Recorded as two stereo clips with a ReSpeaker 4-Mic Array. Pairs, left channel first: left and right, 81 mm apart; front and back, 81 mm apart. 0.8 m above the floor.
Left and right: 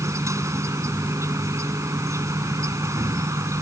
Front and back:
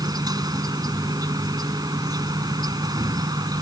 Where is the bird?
I don't hear a bird.